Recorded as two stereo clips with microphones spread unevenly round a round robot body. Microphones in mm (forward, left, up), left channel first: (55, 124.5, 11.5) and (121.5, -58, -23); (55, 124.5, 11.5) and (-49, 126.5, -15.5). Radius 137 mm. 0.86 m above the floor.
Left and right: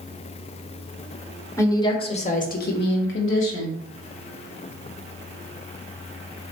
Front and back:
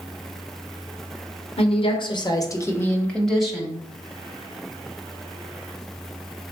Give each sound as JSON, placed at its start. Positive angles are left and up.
{"t": 1.6, "sound": "a woman speaking", "azimuth_deg": 30, "distance_m": 1.3}